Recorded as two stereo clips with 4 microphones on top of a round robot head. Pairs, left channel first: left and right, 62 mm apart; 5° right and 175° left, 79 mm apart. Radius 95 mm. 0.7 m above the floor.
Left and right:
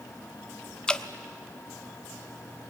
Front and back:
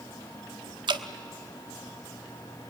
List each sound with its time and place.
0.9 s dripping: 165° left, 1.1 m